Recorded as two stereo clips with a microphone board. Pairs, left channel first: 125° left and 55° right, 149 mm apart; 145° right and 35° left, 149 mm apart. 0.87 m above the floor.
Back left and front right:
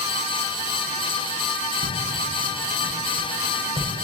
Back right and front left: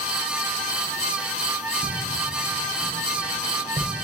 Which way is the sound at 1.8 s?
20° right.